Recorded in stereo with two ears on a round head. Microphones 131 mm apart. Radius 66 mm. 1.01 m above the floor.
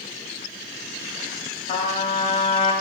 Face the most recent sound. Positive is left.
turn(degrees=40)  # may be behind; listen again after turning